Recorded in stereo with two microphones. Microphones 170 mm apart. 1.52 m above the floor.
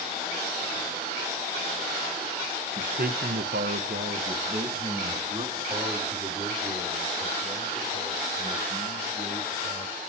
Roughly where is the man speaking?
Right.